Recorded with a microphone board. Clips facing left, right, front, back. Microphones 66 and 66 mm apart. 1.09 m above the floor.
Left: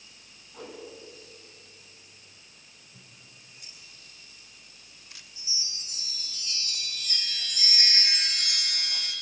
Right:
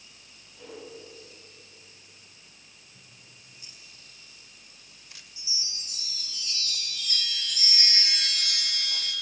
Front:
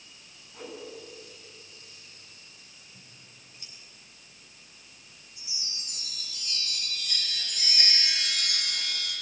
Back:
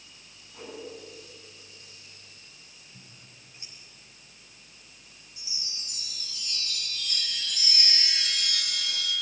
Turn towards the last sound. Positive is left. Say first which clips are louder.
# right 1 dB, even
turn(degrees=30)